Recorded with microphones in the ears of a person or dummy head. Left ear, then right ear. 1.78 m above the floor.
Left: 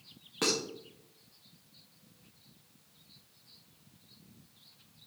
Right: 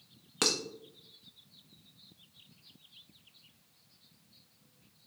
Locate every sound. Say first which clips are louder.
0.4 s dishes clattering: right 1 dB; 35° right (ahead or behind), 2 m